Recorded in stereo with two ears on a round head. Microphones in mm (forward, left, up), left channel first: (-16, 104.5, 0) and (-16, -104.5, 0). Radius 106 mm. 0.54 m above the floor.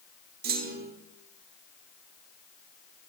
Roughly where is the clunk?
Right.